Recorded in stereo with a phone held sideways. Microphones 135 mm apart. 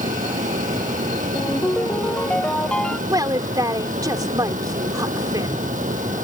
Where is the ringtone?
10° left (ahead or behind).